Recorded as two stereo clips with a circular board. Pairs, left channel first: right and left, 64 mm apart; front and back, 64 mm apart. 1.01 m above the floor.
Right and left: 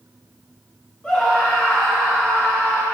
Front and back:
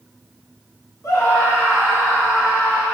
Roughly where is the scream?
Ahead.